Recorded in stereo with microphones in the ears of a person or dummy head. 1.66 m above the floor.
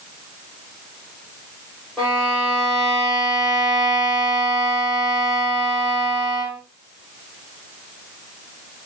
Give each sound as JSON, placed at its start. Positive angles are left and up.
{"t": 2.0, "sound": "a violin", "side_deg": 0, "distance_m": 3.5}